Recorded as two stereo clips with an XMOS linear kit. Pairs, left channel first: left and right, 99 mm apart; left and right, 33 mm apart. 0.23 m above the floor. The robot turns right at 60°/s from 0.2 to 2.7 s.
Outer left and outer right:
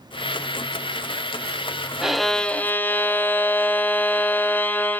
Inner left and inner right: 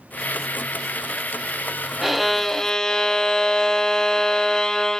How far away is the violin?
About 0.6 m.